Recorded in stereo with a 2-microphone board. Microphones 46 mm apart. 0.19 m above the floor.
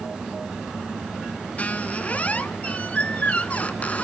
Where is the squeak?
35° left (ahead or behind), 0.7 m.